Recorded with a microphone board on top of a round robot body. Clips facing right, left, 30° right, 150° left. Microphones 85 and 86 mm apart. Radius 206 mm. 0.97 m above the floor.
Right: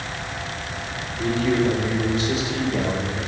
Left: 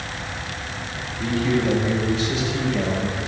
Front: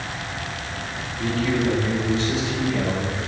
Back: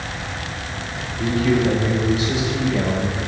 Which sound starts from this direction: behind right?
A man speaking, at 1.2 s.